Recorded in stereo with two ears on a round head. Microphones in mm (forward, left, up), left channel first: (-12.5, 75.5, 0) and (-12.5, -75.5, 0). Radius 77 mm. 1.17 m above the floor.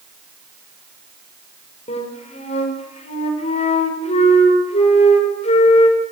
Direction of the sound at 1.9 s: 40° left (ahead or behind).